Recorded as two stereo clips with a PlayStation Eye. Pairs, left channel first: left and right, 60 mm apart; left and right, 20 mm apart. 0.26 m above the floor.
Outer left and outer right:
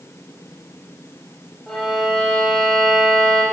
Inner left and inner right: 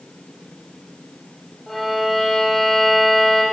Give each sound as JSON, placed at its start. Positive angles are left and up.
{"t": 1.7, "sound": "a violin", "side_deg": 5, "distance_m": 8.5}